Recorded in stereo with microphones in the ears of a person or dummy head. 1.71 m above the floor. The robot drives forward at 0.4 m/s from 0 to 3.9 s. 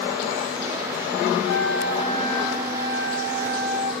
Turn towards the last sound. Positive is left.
turn(degrees=25)  # may be behind; listen again after turning